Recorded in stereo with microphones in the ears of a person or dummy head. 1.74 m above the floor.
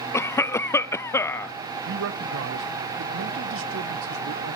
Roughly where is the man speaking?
Right.